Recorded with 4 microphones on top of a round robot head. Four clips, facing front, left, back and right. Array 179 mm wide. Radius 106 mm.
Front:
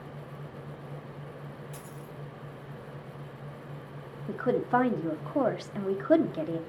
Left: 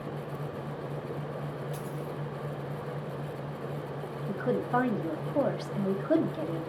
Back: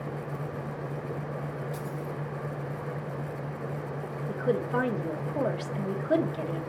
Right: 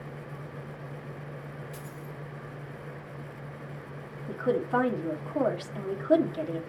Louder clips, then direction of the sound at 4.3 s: Right 2 dB, front 2 dB; 10° right.